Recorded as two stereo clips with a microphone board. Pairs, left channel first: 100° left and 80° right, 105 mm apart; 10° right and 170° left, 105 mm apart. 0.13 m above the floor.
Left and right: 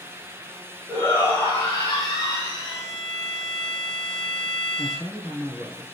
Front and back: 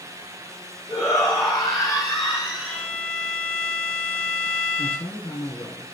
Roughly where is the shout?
Ahead left.